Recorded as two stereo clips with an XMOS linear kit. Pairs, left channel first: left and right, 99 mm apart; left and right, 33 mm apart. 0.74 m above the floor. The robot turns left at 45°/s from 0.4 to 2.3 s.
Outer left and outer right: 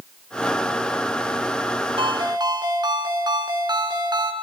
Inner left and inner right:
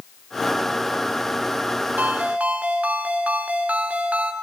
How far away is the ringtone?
About 3.5 m.